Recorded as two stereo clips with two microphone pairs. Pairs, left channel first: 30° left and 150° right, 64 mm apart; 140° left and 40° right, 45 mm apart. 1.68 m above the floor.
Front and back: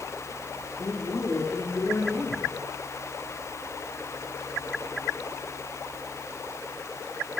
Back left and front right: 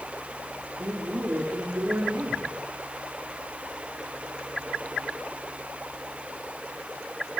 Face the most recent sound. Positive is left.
turn(degrees=-10)